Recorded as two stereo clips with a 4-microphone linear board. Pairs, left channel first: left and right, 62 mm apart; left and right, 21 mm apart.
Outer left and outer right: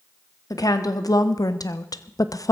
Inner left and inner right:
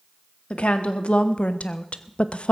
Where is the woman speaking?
75° left (ahead or behind), 1.7 m; by 2.5 s 65° left (ahead or behind), 0.7 m.